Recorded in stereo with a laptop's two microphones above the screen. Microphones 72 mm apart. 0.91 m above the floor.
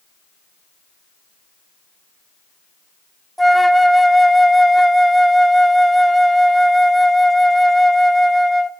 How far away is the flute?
About 0.7 m.